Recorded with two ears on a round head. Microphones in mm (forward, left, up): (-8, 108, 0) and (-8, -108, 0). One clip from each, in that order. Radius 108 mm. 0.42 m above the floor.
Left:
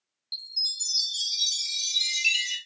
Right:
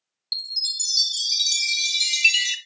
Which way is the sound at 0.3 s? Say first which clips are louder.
Right 4 dB; 40° right (ahead or behind).